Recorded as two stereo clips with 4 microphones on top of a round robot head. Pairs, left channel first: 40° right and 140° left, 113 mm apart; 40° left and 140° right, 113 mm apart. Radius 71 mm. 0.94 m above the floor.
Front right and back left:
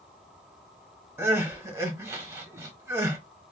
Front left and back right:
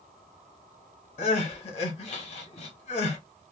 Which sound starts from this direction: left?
Crying, at 1.2 s.